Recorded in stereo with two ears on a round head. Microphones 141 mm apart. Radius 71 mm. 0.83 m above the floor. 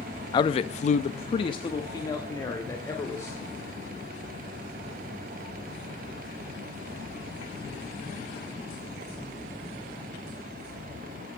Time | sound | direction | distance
0.3 | a man speaking | 25° left (ahead or behind) | 0.8 m